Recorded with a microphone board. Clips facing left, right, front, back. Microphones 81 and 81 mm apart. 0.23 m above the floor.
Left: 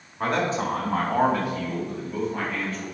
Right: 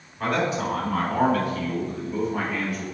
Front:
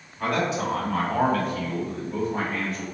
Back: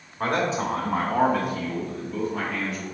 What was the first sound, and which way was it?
A man speaking, 140° left.